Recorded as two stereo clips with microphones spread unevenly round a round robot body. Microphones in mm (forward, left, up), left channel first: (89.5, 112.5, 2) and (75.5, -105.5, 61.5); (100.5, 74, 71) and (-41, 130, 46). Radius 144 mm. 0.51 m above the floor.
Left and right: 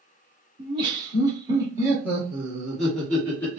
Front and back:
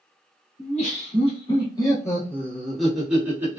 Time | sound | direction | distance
0.6 | laughter | 15° right | 1.6 m